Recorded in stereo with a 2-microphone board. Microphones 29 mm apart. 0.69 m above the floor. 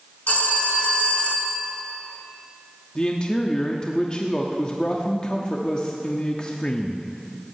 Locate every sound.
0.3 s a phone ringing: 70° left (ahead or behind), 1.8 m
3.0 s a man speaking: 30° left (ahead or behind), 1.3 m